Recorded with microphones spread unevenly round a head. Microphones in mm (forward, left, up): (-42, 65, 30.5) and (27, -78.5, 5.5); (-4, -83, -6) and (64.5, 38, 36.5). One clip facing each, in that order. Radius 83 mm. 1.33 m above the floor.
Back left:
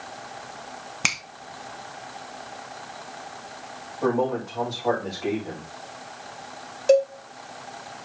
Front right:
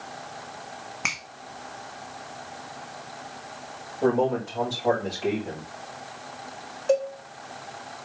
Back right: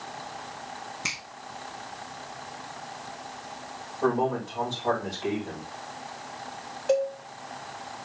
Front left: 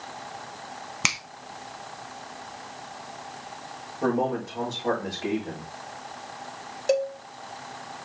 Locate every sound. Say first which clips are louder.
1.0 s a finger snap: back left 5 dB, front left 6 dB; 65° left, 1.3 m
4.0 s a man speaking: front right 1 dB, even; 20° left, 5 m
6.9 s a cowbell: back left 5 dB, even; 85° left, 1.3 m